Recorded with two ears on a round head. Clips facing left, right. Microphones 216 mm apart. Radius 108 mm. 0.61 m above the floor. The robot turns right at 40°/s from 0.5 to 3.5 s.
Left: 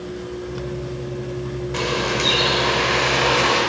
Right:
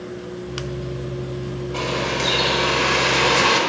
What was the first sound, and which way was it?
A bird, 150° left.